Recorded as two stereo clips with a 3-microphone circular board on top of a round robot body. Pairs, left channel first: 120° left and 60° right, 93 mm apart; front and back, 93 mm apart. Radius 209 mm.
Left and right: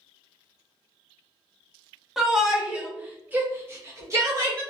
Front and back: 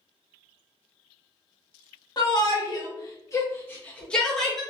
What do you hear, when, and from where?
2.2 s a shout: 25° left, 1.5 m; by 4.6 s 90° right, 1.2 m